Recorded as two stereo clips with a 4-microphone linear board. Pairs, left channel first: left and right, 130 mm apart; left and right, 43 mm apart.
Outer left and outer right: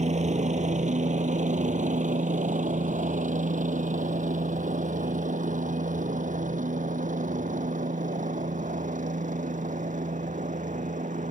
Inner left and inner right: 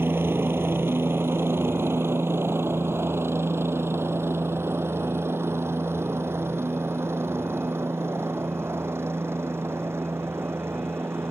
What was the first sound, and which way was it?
A helicopter, 60° right (ahead or behind).